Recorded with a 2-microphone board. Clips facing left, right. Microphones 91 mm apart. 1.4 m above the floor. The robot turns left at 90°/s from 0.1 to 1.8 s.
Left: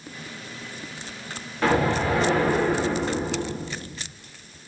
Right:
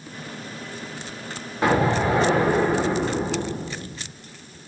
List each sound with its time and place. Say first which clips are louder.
1.6 s an explosion: right 2 dB; 15° right (ahead or behind), 0.6 m; by 4.1 s 25° right (ahead or behind), 0.6 m